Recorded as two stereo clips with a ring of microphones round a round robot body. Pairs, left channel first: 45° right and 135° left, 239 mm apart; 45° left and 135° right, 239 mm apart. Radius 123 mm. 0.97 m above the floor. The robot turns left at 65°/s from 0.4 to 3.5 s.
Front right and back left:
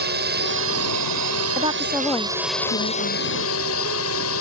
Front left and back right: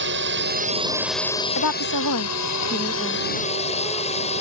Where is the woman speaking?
70° left; by 3.2 s 40° right.